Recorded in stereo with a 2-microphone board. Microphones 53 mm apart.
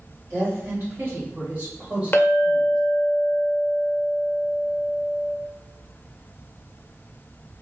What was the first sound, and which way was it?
A woman speaking, 60° right (ahead or behind).